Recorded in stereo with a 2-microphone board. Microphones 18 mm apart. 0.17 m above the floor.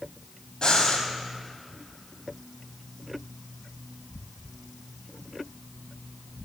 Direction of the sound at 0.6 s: 50° left (ahead or behind).